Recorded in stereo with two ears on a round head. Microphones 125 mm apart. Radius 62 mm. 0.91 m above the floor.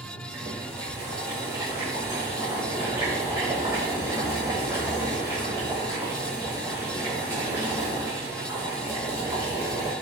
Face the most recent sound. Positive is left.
turn(degrees=-25)  # may be behind; listen again after turning